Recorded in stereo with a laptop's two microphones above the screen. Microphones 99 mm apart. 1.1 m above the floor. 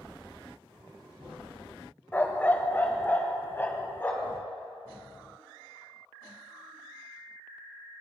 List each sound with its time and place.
2.1 s a dog barking: 20° left (ahead or behind), 1.0 m